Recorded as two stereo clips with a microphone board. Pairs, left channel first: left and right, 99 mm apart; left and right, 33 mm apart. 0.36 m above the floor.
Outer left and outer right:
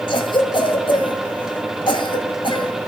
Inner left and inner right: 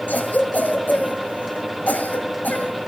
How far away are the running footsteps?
I don't hear running footsteps.